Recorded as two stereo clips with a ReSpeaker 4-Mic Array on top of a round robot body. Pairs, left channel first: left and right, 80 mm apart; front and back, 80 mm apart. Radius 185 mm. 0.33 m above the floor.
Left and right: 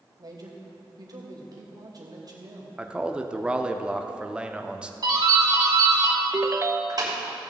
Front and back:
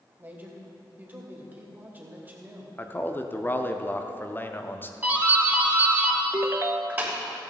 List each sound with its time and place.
0.2 s a man speaking: 115° right, 2.5 m
2.8 s a man speaking: 25° right, 1.1 m
5.0 s a doorbell: 115° right, 3 m
6.3 s a ringtone: 135° right, 0.6 m